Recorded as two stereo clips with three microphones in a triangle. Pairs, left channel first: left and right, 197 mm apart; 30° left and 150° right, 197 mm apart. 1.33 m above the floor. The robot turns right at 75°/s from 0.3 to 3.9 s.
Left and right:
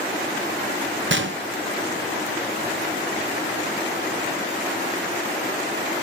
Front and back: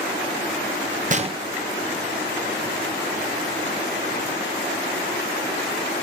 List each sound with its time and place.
1.1 s a gunshot: 100° right, 0.7 m; by 1.4 s 80° right, 0.7 m